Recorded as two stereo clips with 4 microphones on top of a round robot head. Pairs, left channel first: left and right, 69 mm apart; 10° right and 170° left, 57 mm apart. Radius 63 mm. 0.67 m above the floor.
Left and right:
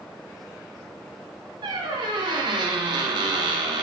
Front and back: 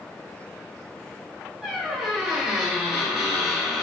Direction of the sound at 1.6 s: 105° right.